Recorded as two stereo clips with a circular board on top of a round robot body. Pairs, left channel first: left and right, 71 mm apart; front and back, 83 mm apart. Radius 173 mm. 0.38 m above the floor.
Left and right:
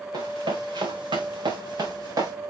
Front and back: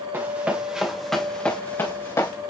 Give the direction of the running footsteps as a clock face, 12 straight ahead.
4 o'clock.